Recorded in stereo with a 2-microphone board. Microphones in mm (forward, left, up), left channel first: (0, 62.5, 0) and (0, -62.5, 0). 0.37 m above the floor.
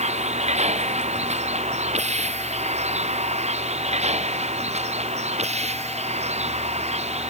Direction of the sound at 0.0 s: 60° right (ahead or behind).